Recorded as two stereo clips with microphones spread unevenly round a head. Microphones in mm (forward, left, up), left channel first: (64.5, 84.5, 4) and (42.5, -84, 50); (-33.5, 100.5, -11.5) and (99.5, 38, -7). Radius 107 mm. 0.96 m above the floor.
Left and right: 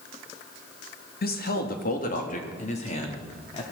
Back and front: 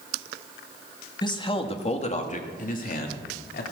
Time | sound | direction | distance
1.2 | a man speaking | 95° left | 1.9 m